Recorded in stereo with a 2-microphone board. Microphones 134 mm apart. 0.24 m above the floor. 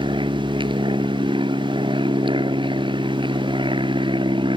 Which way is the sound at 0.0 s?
40° right (ahead or behind).